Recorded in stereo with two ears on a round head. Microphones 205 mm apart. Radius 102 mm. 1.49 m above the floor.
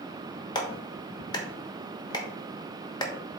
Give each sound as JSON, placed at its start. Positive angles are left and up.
{"t": 0.6, "sound": "a clap", "side_deg": 20, "distance_m": 1.2}